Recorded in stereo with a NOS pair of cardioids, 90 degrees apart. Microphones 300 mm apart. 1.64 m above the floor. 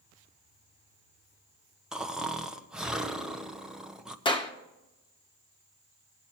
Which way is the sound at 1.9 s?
Straight ahead.